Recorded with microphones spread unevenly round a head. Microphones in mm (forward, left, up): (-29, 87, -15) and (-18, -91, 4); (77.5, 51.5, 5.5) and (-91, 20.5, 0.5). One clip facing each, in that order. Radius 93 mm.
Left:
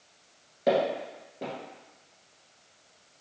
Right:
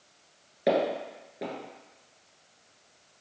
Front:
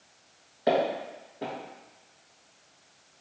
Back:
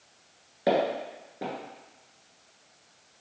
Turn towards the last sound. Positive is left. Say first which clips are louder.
# even, even
turn(degrees=-150)